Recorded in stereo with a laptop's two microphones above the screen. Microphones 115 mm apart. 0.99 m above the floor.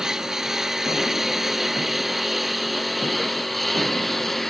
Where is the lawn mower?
5° right (ahead or behind); by 4.5 s centre (ahead or behind).